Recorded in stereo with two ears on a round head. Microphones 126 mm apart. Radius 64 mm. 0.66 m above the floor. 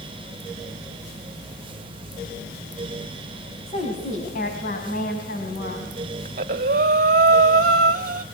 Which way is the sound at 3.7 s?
50° left (ahead or behind).